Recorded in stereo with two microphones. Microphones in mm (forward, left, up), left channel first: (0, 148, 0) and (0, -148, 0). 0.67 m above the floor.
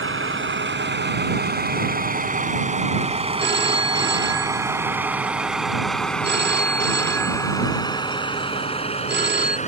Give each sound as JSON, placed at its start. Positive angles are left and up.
{"t": 0.0, "sound": "a vehicle", "side_deg": -45}
{"t": 3.4, "sound": "a phone ringing", "side_deg": -35}